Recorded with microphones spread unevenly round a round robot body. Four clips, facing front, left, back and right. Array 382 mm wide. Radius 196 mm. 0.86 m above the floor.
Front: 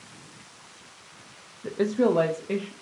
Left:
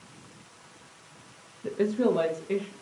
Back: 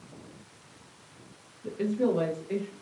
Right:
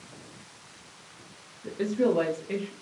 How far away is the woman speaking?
About 0.6 m.